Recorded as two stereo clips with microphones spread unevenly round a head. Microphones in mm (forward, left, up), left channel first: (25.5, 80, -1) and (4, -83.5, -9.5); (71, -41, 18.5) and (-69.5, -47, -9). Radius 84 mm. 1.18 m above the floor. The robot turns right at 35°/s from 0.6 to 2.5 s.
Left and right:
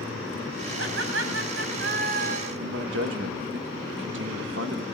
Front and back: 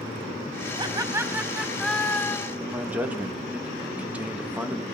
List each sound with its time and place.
0.8 s laughter: 125° right, 3.5 m; by 2.5 s 65° right, 3.5 m
2.6 s a man speaking: 100° right, 1.6 m